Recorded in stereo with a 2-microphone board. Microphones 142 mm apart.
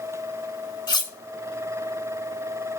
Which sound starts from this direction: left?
Cutlery clinking, at 0.9 s.